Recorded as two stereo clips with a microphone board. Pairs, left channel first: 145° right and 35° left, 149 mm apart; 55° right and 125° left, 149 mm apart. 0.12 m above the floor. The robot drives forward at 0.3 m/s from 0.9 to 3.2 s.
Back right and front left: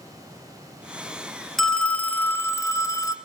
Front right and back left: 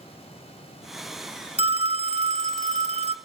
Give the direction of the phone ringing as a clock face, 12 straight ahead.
8 o'clock.